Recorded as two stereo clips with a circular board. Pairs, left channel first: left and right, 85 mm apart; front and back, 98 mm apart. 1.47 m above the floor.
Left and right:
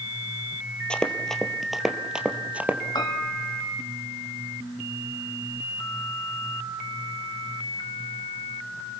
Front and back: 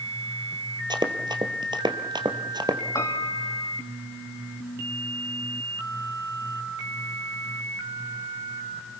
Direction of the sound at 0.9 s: 165° left.